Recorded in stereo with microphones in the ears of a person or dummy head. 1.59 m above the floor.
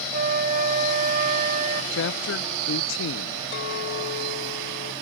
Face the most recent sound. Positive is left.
turn(degrees=70)  # may be behind; listen again after turning